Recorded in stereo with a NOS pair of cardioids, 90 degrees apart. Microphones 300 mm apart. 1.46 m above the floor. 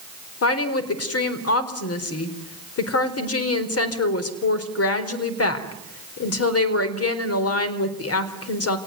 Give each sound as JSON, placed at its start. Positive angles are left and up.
{"t": 0.4, "sound": "a woman speaking", "azimuth_deg": 50, "distance_m": 4.5}